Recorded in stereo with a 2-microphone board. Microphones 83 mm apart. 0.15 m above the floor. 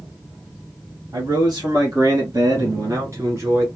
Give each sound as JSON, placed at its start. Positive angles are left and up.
{"t": 1.1, "sound": "a man speaking", "side_deg": -60, "distance_m": 2.5}